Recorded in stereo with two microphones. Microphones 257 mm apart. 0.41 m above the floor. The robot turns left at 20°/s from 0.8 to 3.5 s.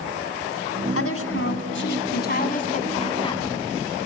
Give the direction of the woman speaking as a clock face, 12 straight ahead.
10 o'clock.